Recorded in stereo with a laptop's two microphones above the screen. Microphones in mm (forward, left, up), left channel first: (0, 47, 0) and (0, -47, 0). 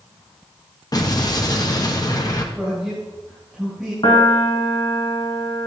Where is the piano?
55° left (ahead or behind), 1.5 m.